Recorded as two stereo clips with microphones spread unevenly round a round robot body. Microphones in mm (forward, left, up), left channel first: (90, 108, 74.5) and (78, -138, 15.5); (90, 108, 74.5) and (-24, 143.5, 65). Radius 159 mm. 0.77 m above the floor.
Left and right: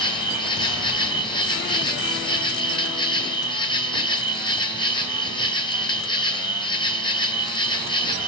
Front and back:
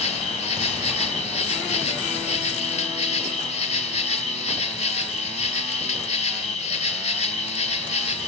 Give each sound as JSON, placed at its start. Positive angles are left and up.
{"t": 0.0, "sound": "an insect", "azimuth_deg": 15, "distance_m": 2.0}